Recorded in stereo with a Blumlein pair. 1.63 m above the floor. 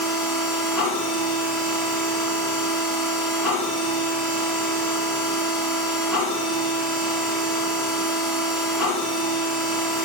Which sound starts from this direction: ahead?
A machine running, at 0.0 s.